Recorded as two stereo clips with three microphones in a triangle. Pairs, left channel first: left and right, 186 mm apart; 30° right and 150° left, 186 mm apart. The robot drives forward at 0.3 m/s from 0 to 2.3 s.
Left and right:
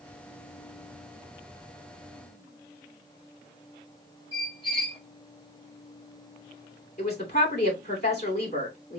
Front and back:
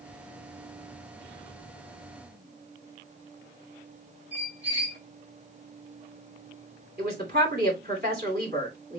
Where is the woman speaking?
120° left, 2.5 m.